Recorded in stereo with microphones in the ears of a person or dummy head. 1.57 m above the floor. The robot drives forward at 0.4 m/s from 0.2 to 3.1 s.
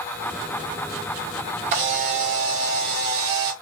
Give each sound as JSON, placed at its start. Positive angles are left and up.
{"t": 1.7, "sound": "a camera shutter", "side_deg": -35, "distance_m": 1.1}